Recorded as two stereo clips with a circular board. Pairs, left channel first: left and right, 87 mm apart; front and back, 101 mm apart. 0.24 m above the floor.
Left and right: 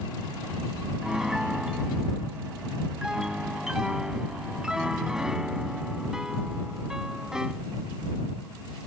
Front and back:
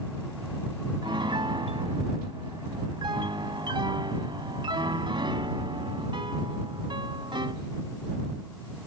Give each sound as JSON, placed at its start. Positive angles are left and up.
{"t": 1.0, "sound": "a piano", "azimuth_deg": -170}